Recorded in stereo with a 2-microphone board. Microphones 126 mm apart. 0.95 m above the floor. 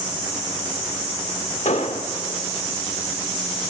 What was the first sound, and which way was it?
An explosion, 70° left (ahead or behind).